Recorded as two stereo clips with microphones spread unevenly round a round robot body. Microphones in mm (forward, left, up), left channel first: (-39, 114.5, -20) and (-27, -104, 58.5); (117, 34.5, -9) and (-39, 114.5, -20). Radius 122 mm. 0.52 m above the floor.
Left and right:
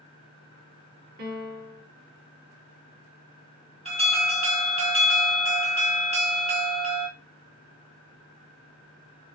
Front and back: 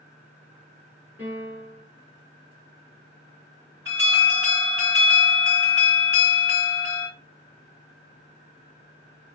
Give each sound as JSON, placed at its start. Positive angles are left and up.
{"t": 1.2, "sound": "a piano", "azimuth_deg": -125, "distance_m": 0.9}
{"t": 3.9, "sound": "an alarm", "azimuth_deg": -160, "distance_m": 1.3}